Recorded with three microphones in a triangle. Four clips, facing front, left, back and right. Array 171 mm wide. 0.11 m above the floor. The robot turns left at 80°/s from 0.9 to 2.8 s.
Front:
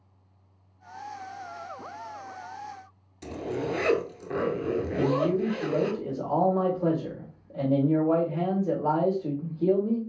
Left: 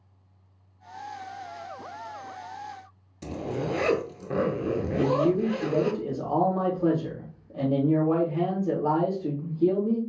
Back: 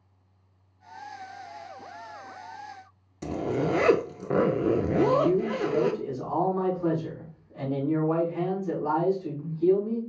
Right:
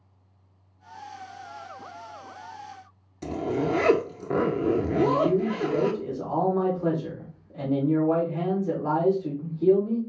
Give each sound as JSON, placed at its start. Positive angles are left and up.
{"t": 3.2, "sound": "a zipper", "azimuth_deg": -155, "distance_m": 0.6}
{"t": 4.9, "sound": "a man speaking", "azimuth_deg": 35, "distance_m": 3.5}